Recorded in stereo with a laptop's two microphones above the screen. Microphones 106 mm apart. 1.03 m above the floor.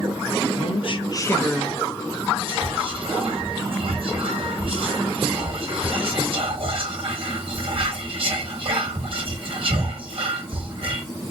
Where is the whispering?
60° right (ahead or behind), 1.8 m.